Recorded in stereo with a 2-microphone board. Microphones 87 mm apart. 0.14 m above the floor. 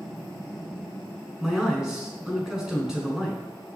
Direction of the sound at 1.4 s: 10° right (ahead or behind).